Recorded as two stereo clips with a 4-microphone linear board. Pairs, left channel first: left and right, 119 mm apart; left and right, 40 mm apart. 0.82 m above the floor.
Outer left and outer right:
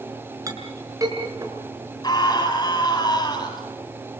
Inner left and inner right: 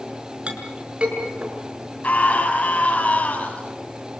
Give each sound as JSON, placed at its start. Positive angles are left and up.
{"t": 0.5, "sound": "a clink", "side_deg": -30, "distance_m": 6.0}
{"t": 2.0, "sound": "a scream", "side_deg": 35, "distance_m": 7.5}